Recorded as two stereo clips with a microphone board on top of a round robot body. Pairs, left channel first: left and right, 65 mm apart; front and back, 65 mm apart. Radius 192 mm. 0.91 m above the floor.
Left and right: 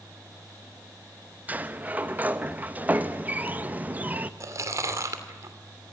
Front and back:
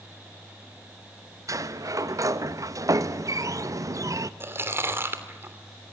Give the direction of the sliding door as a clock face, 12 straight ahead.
5 o'clock.